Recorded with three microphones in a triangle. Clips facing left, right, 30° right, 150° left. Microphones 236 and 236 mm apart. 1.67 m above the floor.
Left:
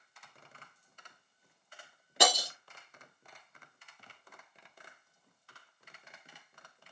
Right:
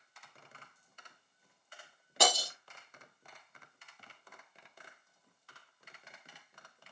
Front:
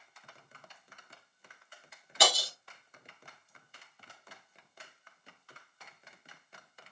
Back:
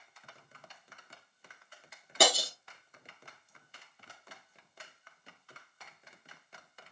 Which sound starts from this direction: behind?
Breaking glass, at 2.2 s.